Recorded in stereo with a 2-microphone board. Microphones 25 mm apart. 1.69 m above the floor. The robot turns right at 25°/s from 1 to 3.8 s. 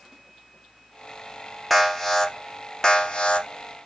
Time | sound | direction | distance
1.7 | an alarm | 5° left | 1.1 m